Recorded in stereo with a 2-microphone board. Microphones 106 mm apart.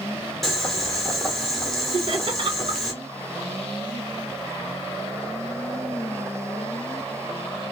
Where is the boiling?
5° left (ahead or behind), 1.1 m.